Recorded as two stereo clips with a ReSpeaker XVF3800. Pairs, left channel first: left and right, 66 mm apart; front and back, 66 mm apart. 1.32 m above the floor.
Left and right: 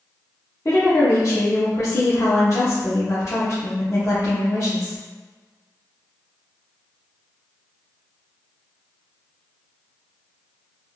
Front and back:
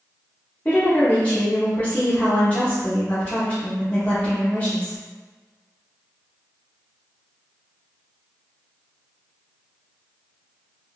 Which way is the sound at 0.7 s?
65° left.